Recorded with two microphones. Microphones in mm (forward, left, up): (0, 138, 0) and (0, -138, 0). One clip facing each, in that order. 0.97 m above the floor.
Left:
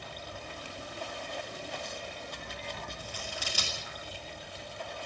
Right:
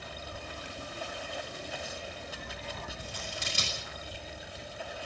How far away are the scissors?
About 8.5 m.